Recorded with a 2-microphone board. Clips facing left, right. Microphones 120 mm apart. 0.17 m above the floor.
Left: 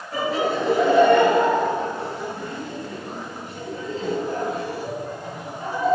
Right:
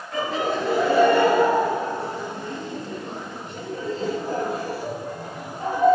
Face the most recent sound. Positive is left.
turn(degrees=-45)  # may be behind; listen again after turning